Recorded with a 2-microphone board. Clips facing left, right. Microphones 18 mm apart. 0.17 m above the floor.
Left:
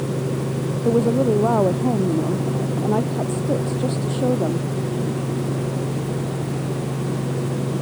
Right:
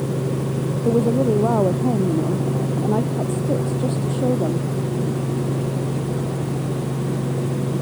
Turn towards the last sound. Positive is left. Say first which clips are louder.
# even
turn(degrees=20)  # may be behind; listen again after turning